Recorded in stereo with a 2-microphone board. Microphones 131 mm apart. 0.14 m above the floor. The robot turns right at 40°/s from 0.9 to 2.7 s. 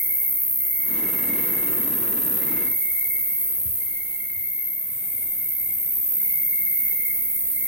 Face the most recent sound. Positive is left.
turn(degrees=-120)